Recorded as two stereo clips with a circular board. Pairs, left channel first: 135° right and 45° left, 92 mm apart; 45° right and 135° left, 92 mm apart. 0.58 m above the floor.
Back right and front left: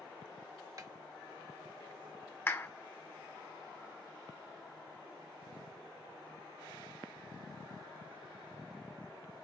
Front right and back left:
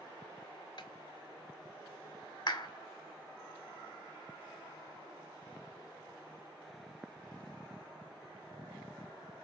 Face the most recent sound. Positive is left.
turn(degrees=-75)